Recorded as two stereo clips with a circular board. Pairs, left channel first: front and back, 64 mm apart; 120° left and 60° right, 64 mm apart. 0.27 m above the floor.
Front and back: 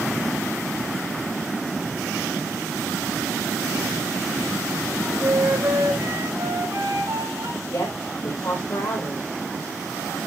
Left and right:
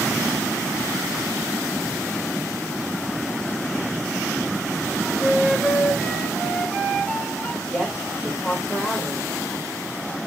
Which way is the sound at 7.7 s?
25° left.